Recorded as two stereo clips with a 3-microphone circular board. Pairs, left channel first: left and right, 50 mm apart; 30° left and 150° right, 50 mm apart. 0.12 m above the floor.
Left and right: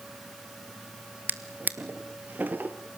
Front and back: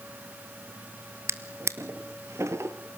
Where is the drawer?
140° right, 1.4 m.